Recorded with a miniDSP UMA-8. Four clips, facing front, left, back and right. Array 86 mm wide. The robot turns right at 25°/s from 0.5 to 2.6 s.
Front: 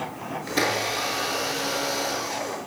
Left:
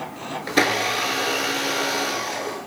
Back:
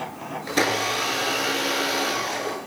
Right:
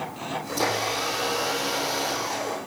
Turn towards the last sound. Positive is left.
turn(degrees=150)